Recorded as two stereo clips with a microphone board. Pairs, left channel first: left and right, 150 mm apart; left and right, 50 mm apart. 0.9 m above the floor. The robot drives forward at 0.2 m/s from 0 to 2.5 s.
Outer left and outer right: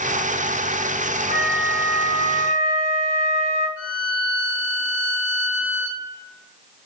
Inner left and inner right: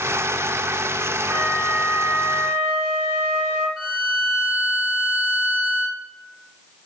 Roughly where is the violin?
Centre.